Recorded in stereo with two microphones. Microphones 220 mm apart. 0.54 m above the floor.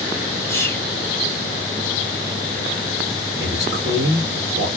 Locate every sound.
0.5 s whispering: 10° left (ahead or behind), 1.0 m
3.4 s a man speaking: 50° right (ahead or behind), 1.7 m